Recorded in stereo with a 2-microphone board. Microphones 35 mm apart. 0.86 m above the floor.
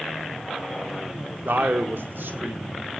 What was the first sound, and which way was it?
A man speaking, 70° right (ahead or behind).